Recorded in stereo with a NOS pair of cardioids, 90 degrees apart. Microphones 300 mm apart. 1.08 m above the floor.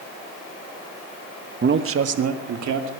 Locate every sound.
1.6 s a man speaking: 35° right, 1.2 m; by 2.9 s 70° right, 2.5 m